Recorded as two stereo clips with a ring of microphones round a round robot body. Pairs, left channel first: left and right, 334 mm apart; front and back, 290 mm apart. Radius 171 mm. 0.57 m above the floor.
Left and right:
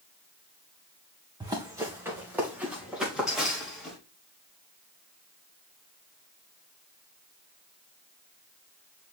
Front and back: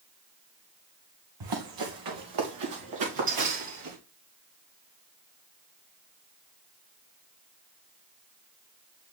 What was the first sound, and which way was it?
Running footsteps, 170° right.